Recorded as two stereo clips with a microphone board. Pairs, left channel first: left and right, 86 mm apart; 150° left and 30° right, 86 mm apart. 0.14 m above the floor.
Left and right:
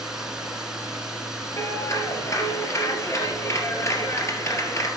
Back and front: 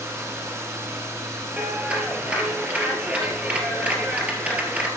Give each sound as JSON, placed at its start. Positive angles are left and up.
{"t": 0.0, "sound": "running water", "azimuth_deg": -10, "distance_m": 1.4}
{"t": 1.6, "sound": "a clap", "azimuth_deg": 40, "distance_m": 2.0}